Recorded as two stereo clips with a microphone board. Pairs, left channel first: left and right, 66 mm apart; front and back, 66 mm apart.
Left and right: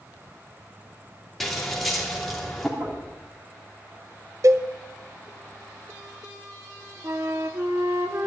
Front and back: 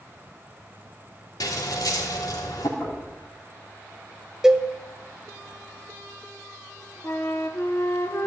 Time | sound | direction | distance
1.4 | scissors | straight ahead | 2.5 m
2.8 | knocking | 55° right | 9 m
4.4 | a cowbell | 100° right | 0.8 m
7.0 | a flute | 45° right | 1.6 m